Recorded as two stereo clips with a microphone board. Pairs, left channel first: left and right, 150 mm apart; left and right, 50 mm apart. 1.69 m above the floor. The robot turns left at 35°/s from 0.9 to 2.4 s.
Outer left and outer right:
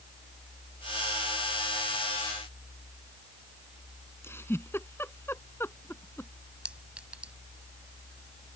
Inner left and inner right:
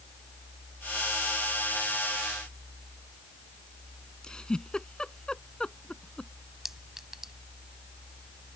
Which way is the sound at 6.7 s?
5° right (ahead or behind).